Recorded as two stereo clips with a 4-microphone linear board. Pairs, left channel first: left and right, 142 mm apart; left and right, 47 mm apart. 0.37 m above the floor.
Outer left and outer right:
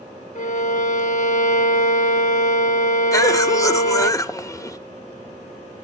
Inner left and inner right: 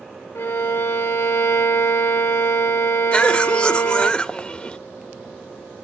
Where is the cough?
25° left (ahead or behind), 0.8 m.